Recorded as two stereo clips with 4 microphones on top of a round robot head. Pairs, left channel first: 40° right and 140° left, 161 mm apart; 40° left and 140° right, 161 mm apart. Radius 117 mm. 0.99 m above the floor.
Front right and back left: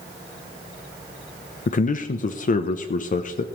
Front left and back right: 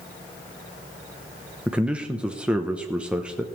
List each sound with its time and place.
1.7 s a man speaking: 60° right, 0.7 m